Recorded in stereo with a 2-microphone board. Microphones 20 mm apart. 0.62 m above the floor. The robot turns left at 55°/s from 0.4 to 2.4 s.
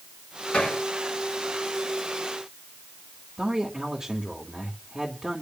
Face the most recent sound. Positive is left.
turn(degrees=-50)  # may be behind; listen again after turning